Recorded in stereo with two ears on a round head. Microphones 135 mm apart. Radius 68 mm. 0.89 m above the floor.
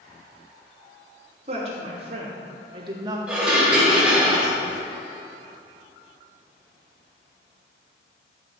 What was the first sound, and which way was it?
A woman speaking, 45° right (ahead or behind).